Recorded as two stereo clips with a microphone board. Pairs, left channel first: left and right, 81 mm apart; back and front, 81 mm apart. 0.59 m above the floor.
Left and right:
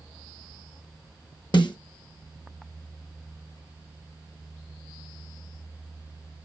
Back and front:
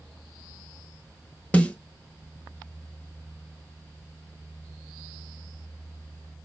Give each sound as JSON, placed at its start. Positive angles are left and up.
{"t": 1.5, "sound": "a snare drum", "azimuth_deg": 105, "distance_m": 0.8}